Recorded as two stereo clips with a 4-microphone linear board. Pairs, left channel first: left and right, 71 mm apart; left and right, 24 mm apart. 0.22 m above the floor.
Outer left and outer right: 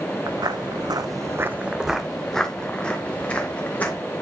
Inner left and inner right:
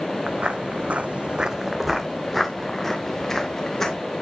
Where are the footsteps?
65° right (ahead or behind), 1.0 m; by 4.0 s 25° left (ahead or behind), 2.5 m.